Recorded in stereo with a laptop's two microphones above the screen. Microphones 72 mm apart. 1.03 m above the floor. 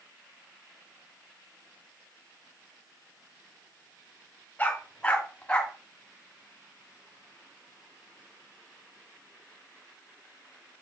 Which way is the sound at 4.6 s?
20° left (ahead or behind).